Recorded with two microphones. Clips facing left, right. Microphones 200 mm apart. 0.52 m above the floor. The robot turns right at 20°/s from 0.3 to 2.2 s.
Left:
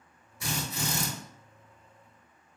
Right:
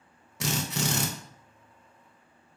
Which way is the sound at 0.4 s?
85° right.